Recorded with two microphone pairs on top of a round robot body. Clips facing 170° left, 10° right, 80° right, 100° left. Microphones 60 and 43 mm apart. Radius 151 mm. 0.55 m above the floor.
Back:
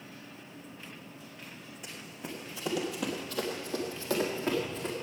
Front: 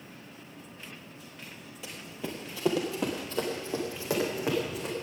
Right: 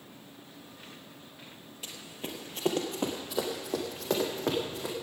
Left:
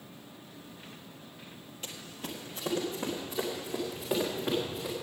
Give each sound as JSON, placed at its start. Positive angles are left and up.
{"t": 1.8, "sound": "running footsteps", "azimuth_deg": 10, "distance_m": 0.8}